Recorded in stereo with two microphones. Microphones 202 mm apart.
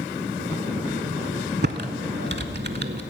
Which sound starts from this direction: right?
Typing on a keyboard, at 1.6 s.